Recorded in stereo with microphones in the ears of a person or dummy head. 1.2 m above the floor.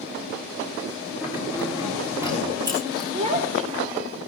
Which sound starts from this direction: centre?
Keys jangling, at 1.2 s.